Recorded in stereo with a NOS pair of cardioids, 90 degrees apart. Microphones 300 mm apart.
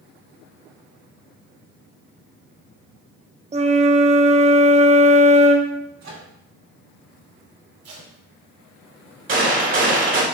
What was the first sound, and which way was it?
A flute, 20° right.